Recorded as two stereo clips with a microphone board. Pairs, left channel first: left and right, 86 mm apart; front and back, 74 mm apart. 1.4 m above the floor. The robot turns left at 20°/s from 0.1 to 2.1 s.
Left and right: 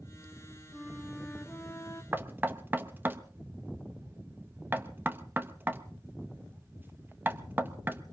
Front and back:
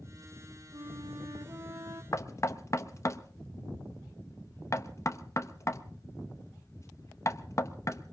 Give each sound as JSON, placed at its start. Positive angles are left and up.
{"t": 0.7, "sound": "a flute", "azimuth_deg": 180, "distance_m": 1.9}
{"t": 2.1, "sound": "knocking", "azimuth_deg": -30, "distance_m": 0.8}